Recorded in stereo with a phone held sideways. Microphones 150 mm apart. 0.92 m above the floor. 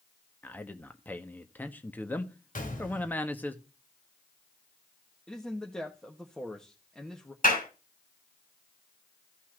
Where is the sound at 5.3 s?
5° left (ahead or behind), 1.3 m.